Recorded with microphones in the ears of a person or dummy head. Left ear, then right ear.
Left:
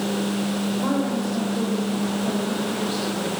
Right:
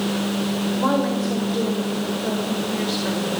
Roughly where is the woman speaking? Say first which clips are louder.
Right 5 dB; right.